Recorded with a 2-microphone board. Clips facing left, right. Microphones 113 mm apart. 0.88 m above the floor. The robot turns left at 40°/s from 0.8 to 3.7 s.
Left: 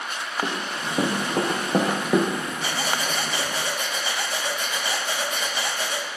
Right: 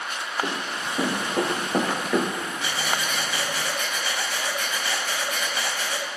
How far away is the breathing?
About 0.8 m.